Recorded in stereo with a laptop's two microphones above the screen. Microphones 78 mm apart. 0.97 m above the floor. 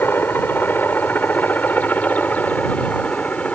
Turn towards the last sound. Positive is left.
turn(degrees=15)  # may be behind; listen again after turning